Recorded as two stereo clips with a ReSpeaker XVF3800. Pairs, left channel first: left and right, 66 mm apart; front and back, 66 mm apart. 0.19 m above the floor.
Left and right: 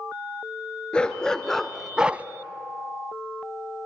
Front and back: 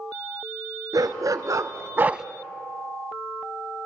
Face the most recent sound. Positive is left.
turn(degrees=-100)